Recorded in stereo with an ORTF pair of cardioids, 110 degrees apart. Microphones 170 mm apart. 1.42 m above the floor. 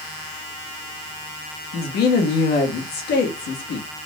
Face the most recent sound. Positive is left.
turn(degrees=70)